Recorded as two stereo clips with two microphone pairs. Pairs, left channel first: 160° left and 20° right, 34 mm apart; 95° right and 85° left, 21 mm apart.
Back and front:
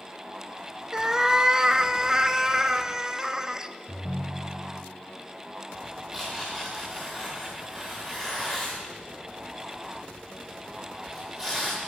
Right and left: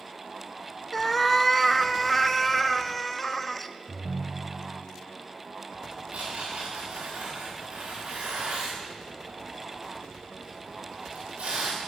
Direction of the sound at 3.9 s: 35° left.